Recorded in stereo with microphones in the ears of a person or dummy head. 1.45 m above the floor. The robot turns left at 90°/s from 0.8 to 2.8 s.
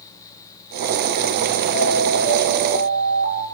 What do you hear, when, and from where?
1.7 s an alarm: 130° left, 7 m; by 3.4 s 35° left, 7 m